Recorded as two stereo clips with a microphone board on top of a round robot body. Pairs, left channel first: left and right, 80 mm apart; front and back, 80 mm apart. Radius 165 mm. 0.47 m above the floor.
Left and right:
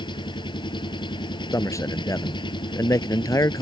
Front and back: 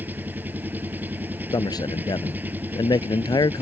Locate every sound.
0.0 s an engine running: 110° left
1.5 s a man speaking: 40° left